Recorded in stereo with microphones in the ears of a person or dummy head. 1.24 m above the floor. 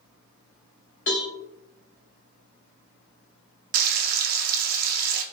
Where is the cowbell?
40° left (ahead or behind), 0.9 m.